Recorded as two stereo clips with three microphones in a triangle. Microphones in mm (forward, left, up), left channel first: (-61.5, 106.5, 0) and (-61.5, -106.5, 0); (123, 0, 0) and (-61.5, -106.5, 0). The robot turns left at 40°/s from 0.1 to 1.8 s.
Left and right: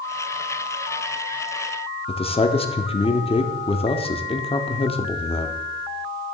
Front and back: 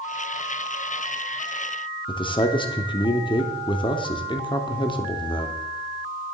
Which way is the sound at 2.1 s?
70° left.